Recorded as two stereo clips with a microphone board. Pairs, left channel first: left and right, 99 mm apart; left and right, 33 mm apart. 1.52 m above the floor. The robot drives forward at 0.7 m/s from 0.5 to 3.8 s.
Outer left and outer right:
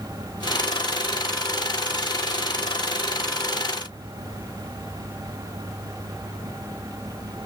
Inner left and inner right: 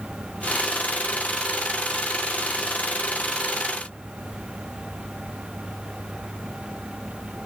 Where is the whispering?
No whispering in this recording.